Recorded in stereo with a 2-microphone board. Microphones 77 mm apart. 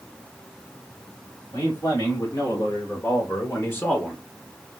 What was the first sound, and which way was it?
A man speaking, 60° left (ahead or behind).